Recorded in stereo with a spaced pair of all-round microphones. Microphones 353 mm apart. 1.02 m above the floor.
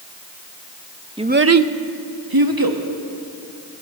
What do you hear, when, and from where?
1.2 s a child speaking: 15° right (ahead or behind), 0.6 m; by 2.8 s 65° right (ahead or behind), 1.3 m